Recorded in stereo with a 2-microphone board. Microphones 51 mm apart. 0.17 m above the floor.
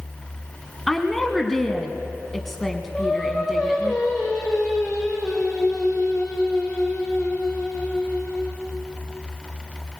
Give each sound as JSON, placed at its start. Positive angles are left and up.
{"t": 0.9, "sound": "a woman speaking", "side_deg": 5, "distance_m": 1.4}
{"t": 2.9, "sound": "singing", "side_deg": 10, "distance_m": 4.5}